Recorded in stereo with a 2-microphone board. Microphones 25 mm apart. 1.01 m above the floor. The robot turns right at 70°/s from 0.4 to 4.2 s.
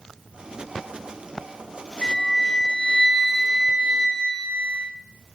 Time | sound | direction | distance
2.0 | a flute | 90° left | 1.9 m